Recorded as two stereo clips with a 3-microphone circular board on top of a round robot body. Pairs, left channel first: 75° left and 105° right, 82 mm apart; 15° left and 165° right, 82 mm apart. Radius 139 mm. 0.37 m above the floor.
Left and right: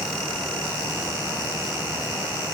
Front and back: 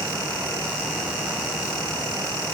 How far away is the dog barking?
I don't hear a dog barking.